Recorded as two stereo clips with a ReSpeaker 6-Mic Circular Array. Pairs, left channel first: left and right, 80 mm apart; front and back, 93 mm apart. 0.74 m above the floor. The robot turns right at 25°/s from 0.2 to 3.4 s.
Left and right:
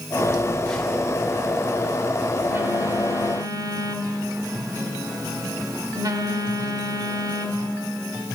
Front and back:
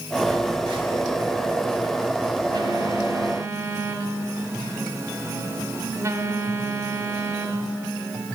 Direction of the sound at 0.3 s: 160° left.